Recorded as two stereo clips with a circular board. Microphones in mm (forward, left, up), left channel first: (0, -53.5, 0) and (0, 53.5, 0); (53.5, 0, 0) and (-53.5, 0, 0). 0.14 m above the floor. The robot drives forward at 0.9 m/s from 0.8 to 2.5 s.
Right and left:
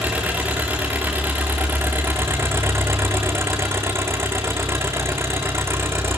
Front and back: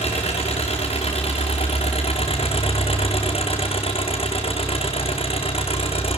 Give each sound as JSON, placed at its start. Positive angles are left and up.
{"t": 0.0, "sound": "an engine running", "azimuth_deg": 15, "distance_m": 4.0}